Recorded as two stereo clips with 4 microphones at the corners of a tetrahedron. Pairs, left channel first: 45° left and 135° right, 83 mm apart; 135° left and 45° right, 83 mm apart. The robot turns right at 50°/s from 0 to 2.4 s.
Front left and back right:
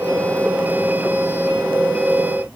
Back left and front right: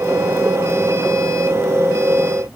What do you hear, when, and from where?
Only background noise.